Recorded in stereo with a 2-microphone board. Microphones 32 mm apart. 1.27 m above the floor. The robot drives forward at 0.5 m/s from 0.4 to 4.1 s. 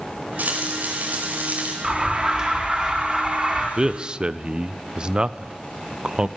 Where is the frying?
55° right (ahead or behind), 4.5 m; by 1.7 s 50° right (ahead or behind), 5 m.